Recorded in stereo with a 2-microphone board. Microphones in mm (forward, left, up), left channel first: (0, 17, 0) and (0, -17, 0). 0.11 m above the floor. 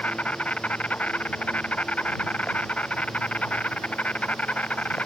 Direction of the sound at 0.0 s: 45° left (ahead or behind).